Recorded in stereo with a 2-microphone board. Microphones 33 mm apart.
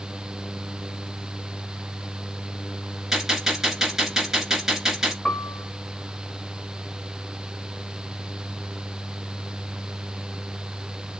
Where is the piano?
20° left (ahead or behind), 1.7 m.